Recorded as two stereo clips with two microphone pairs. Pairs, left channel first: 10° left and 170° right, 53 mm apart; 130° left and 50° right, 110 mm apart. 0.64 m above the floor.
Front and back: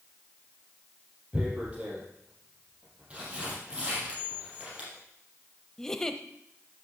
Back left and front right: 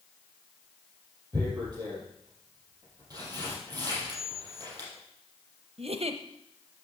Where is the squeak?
65° left, 1.8 m.